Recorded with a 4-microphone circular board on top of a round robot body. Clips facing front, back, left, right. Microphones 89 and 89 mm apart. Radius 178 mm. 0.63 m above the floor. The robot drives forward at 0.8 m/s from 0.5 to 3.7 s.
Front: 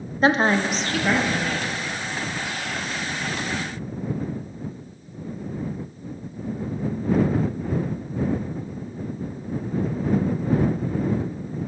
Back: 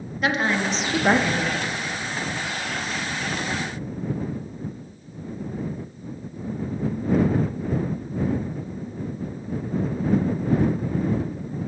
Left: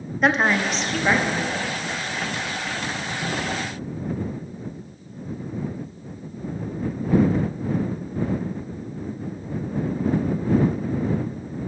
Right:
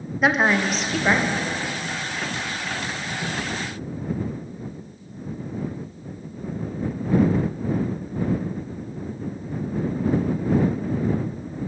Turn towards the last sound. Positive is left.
turn(degrees=180)